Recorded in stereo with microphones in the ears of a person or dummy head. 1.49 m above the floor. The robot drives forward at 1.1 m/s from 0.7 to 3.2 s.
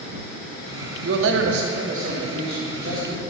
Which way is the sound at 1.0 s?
60° right (ahead or behind).